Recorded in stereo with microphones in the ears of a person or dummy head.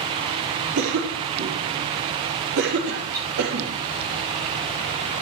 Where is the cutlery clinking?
25° right (ahead or behind), 8 m.